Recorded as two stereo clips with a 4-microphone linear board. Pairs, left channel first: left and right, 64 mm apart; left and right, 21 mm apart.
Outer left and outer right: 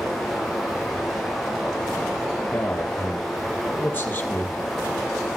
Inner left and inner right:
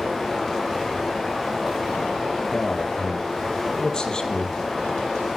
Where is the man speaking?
30° left (ahead or behind), 3.5 m.